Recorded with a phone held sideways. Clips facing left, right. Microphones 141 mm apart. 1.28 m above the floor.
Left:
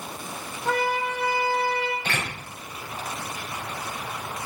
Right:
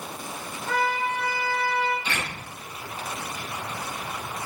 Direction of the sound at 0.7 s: 70° left (ahead or behind).